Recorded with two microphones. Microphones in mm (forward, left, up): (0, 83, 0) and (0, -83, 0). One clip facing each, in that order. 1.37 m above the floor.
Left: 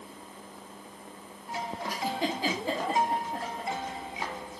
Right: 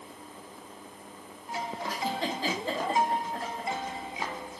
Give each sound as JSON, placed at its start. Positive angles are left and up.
{"t": 1.9, "sound": "a giggle", "side_deg": 15, "distance_m": 1.2}